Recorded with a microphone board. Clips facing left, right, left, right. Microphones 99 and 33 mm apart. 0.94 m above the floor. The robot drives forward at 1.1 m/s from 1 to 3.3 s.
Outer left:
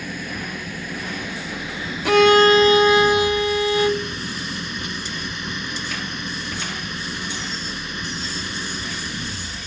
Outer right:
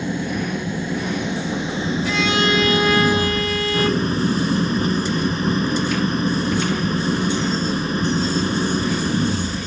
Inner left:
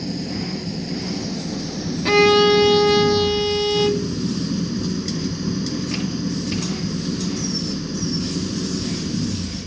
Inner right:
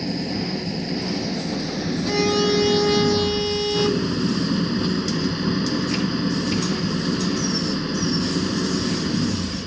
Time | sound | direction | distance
0.0 | an engine running | 25° right (ahead or behind) | ?
2.0 | a violin | 65° left (ahead or behind) | ?